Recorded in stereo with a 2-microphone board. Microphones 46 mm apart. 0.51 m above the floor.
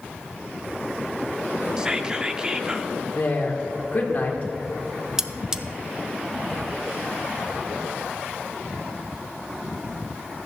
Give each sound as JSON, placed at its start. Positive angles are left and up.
{"t": 1.8, "sound": "whispering", "side_deg": -20, "distance_m": 0.7}
{"t": 3.1, "sound": "a woman speaking", "side_deg": 40, "distance_m": 1.5}
{"t": 5.2, "sound": "cutlery clinking", "side_deg": -15, "distance_m": 0.6}